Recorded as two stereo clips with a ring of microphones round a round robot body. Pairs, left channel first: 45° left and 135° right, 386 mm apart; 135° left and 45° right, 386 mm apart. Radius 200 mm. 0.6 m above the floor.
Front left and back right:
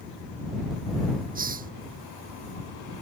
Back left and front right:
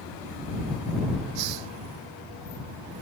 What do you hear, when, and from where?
1.4 s a hiss: 65° right